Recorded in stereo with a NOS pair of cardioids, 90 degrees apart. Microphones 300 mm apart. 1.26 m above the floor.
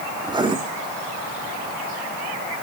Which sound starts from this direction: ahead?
Writing, at 0.2 s.